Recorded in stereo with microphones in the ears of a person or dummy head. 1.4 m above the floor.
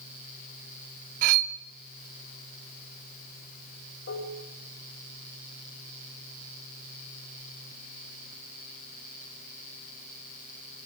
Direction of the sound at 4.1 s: 65° left (ahead or behind).